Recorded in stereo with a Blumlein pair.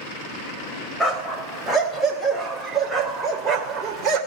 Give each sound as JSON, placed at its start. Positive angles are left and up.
{"t": 1.0, "sound": "a dog barking", "azimuth_deg": 0, "distance_m": 3.5}